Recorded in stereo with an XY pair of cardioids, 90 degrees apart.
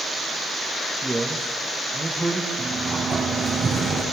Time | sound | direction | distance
1.0 | a man speaking | 15° right | 2 m
2.6 | a sliding door | 40° right | 4.5 m